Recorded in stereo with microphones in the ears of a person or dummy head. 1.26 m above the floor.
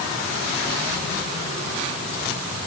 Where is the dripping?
I don't hear dripping.